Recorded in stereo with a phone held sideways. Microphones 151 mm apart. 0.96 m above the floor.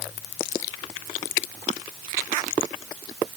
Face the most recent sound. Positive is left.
No sound to turn to.